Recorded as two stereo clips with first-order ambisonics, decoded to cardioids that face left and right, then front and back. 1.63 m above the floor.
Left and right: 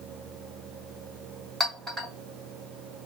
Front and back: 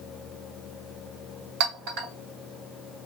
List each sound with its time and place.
1.6 s a clink: 175° right, 2 m